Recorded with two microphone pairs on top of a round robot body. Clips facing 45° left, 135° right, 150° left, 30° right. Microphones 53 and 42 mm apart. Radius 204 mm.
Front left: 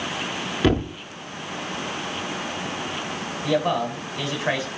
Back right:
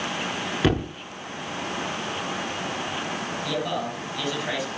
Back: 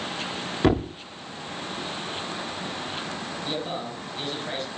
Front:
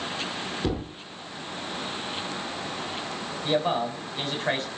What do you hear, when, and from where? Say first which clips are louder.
0.6 s a thud: front left 3 dB, back 10 dB; 140° left, 0.5 m
3.4 s a man speaking: front left 8 dB, front 8 dB; 10° right, 7 m